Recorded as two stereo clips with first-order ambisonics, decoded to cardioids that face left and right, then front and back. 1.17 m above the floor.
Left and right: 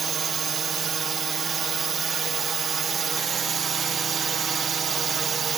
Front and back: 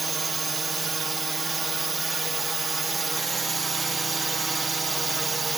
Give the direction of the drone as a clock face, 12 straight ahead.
4 o'clock.